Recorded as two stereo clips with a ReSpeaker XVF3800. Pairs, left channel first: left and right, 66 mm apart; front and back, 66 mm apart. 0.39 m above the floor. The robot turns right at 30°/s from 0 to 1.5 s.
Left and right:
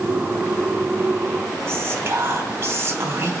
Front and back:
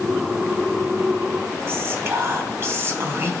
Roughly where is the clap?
No clap in this recording.